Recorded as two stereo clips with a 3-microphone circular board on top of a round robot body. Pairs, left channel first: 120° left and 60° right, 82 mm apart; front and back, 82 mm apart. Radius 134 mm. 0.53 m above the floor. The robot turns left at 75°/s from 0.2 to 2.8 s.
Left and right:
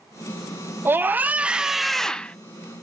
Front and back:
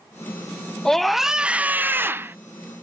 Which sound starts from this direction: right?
A scream, at 0.8 s.